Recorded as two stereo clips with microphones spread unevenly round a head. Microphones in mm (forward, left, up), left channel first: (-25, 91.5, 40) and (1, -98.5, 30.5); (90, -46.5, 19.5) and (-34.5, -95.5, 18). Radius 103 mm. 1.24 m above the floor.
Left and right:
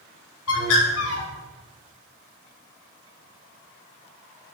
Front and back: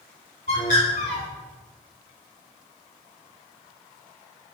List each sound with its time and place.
0.5 s a bird: 80° left, 5 m